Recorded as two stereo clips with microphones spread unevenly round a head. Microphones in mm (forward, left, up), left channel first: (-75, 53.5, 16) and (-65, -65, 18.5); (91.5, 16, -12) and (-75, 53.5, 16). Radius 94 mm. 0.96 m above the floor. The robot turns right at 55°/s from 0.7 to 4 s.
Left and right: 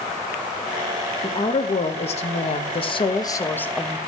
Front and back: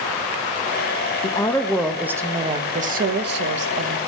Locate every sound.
1.2 s a woman speaking: 35° left, 1.0 m; by 4.0 s 175° right, 1.0 m